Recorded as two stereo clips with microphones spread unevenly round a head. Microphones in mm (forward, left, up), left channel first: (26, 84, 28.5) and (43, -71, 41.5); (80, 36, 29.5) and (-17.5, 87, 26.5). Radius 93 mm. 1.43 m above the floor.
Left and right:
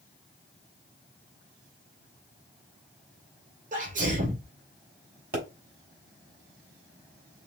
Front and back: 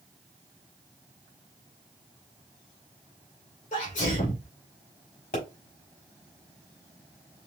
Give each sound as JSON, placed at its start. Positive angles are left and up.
{"t": 3.7, "sound": "a sneeze", "azimuth_deg": -45, "distance_m": 3.0}
{"t": 5.3, "sound": "a pop", "azimuth_deg": -55, "distance_m": 3.0}